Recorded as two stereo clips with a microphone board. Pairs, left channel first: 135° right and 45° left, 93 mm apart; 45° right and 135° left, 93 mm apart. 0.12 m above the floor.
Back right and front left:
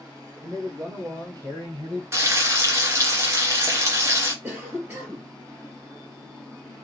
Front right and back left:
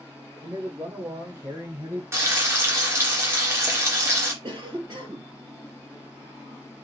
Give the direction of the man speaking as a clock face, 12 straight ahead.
9 o'clock.